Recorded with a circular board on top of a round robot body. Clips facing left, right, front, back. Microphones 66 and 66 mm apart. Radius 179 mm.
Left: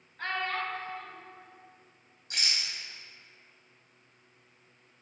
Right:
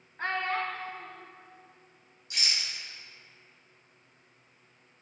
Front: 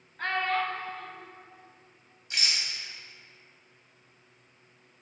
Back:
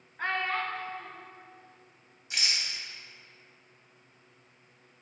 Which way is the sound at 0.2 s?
115° right.